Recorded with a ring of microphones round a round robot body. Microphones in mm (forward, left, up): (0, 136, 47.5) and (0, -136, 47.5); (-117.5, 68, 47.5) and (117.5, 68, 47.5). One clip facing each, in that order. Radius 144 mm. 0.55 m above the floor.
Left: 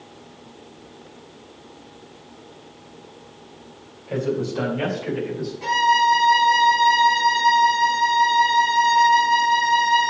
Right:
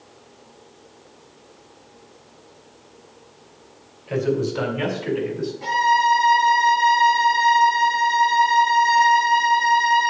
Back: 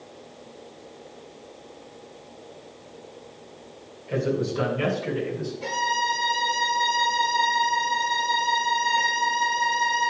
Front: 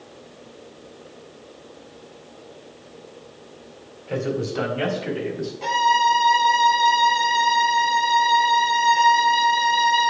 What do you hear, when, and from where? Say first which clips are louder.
4.1 s a man speaking: right 2 dB, even; 25° right, 4 m; by 5.5 s 15° right, 4.5 m
5.6 s a violin: even, front 6 dB; 15° left, 3 m